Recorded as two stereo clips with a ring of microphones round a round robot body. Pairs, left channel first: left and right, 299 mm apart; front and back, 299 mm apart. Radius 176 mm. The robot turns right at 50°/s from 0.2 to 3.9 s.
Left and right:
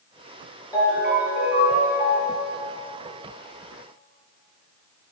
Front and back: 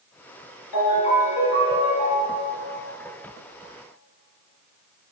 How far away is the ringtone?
About 3.5 m.